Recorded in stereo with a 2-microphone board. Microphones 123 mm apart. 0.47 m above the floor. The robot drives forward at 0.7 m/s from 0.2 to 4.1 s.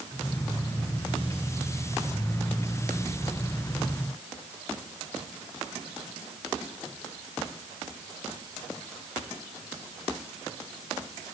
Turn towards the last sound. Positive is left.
No sound to turn to.